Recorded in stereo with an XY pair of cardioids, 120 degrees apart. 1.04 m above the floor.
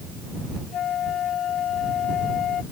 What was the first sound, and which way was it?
A flute, 55° left.